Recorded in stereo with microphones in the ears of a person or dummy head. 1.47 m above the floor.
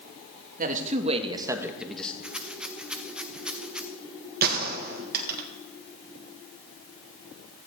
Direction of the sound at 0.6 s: 50° right (ahead or behind).